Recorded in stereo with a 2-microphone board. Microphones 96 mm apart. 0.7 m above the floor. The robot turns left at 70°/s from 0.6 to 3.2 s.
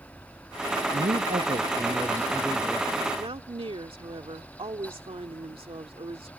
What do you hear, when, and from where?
0.9 s a man speaking: 70° right; by 2.9 s 150° left
3.2 s a woman speaking: 65° right (ahead or behind)